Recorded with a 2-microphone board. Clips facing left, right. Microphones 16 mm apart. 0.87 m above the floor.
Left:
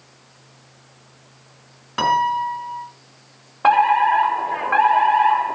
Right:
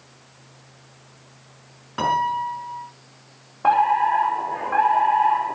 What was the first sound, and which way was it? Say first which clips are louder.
A piano: left 3 dB; 35° left (ahead or behind).